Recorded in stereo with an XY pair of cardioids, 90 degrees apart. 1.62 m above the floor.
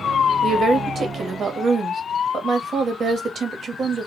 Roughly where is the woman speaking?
Ahead right.